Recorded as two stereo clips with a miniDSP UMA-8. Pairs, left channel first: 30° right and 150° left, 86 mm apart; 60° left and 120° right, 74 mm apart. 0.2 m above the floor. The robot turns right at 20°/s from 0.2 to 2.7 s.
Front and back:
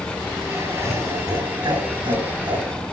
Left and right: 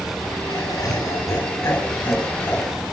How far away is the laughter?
About 4.5 m.